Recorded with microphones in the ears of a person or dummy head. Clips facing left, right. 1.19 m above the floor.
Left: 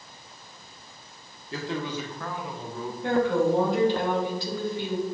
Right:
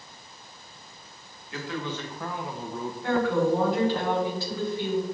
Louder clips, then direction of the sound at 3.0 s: Left 1 dB; 15° left (ahead or behind).